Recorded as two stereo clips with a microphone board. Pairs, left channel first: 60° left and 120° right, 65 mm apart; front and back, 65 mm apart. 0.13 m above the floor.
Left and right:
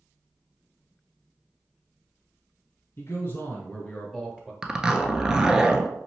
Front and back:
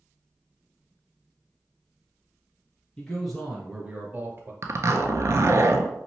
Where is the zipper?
165° left, 0.5 m.